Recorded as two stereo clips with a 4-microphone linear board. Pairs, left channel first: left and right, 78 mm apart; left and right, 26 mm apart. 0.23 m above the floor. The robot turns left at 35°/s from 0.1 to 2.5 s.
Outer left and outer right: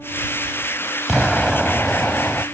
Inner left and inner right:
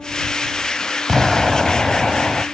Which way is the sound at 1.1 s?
Centre (ahead or behind).